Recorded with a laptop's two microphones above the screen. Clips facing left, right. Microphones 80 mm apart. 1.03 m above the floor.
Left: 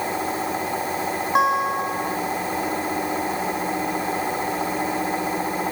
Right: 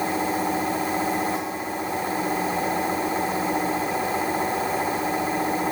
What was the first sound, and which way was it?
A guitar, 65° left (ahead or behind).